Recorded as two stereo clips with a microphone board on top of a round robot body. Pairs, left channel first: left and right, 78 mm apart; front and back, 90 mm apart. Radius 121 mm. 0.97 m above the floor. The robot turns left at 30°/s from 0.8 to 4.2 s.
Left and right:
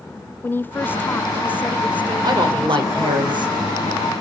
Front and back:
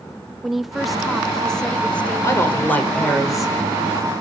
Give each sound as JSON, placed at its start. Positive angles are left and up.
{"t": 0.4, "sound": "a woman speaking", "azimuth_deg": 95, "distance_m": 0.7}
{"t": 2.2, "sound": "a woman speaking", "azimuth_deg": -60, "distance_m": 4.5}